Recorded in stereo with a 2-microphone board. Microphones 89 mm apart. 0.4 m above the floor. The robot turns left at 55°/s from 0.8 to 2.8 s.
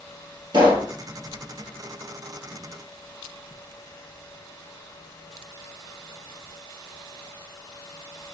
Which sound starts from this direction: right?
A pop, at 0.5 s.